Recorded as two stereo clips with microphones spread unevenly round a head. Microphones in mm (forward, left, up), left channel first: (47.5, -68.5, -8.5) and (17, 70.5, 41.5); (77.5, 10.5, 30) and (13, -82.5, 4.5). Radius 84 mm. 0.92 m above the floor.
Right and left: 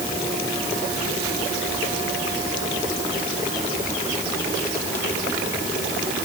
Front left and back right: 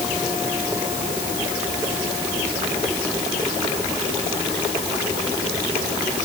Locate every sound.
Only background noise.